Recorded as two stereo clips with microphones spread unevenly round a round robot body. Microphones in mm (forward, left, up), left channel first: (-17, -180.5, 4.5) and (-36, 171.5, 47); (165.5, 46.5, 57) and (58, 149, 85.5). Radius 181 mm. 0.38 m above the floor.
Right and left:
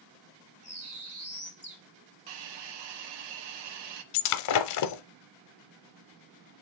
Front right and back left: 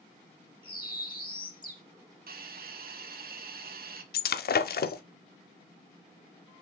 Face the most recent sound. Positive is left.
turn(degrees=-45)